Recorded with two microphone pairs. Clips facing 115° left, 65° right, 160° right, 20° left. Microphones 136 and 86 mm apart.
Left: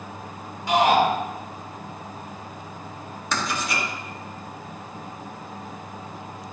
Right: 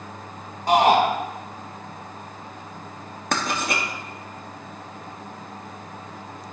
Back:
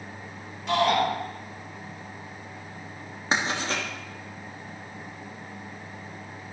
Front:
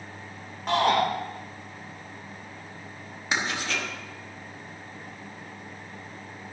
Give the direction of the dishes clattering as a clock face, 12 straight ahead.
No dishes clattering in this recording.